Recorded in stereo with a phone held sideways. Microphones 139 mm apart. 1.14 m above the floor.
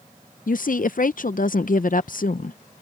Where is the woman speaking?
65° left (ahead or behind).